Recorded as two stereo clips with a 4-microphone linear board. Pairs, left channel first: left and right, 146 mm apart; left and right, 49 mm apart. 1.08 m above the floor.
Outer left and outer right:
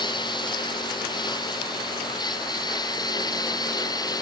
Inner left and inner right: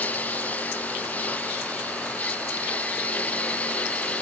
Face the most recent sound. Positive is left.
turn(degrees=25)  # may be behind; listen again after turning